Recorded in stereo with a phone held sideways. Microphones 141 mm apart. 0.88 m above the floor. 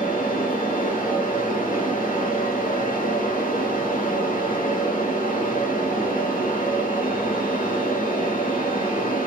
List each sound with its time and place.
0.0 s a fan: 75° left (ahead or behind), 1.3 m